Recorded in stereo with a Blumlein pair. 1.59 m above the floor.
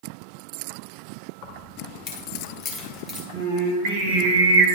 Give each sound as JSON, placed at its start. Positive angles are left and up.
{"t": 1.4, "sound": "keys jangling", "azimuth_deg": 40, "distance_m": 2.0}
{"t": 3.3, "sound": "singing", "azimuth_deg": -50, "distance_m": 1.5}